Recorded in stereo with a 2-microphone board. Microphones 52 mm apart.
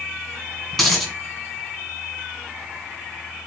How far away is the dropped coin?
About 1.8 m.